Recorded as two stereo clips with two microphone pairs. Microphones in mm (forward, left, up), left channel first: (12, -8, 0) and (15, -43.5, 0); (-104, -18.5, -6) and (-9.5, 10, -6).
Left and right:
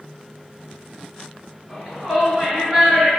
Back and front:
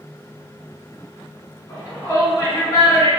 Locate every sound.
1.7 s a shout: 175° right, 1.8 m; by 3.1 s 135° right, 1.8 m